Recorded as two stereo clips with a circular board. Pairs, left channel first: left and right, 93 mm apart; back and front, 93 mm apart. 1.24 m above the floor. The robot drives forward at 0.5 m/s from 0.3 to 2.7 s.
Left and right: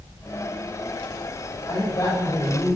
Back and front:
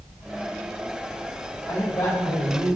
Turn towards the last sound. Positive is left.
turn(degrees=130)